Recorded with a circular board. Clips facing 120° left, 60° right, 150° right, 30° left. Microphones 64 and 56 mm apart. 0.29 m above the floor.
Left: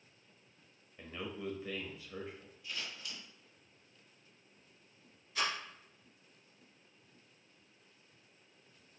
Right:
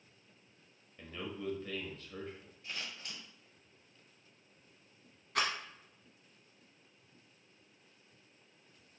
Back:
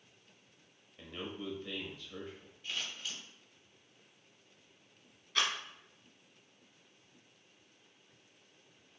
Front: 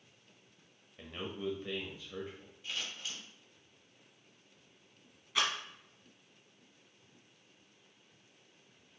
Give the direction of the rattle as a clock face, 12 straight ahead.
2 o'clock.